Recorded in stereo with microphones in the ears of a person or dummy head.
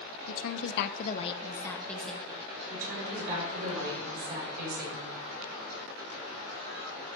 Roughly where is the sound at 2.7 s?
Right.